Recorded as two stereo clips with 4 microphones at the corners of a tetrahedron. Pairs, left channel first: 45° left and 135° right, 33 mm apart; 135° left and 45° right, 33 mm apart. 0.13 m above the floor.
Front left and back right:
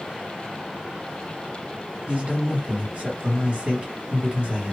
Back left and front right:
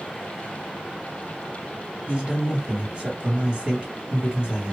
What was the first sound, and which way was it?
A man speaking, 95° right.